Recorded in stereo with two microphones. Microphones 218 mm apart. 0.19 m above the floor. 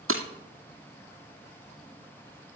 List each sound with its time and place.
0.1 s breaking glass: 80° right, 2 m